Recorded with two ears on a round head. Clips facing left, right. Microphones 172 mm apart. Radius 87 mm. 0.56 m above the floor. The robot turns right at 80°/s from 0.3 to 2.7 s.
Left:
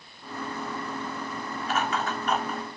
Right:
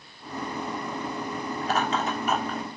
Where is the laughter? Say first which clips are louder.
Right 2 dB; 35° right (ahead or behind), 1.3 m; by 2.6 s 10° left (ahead or behind), 1.3 m.